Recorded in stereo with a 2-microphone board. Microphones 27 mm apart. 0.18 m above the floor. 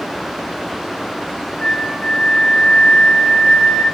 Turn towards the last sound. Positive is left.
turn(degrees=45)  # may be behind; listen again after turning